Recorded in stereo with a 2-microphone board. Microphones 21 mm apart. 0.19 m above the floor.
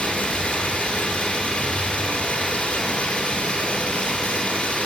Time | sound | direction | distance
0.0 | running water | 60° left (ahead or behind) | 2 m